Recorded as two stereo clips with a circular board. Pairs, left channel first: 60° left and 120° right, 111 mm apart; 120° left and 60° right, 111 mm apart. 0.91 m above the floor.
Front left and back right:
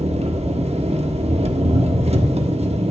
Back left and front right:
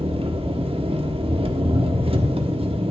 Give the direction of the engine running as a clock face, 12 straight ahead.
3 o'clock.